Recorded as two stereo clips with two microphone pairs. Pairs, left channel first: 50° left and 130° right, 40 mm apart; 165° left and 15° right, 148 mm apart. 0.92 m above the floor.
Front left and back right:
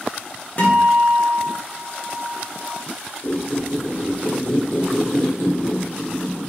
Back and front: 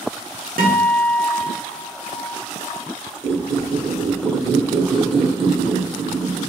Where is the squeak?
30° left, 0.9 m.